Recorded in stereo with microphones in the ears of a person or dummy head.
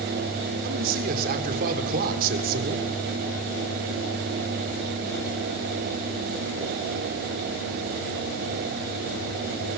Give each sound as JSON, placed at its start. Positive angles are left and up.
{"t": 0.6, "sound": "a man speaking", "side_deg": -50, "distance_m": 3.5}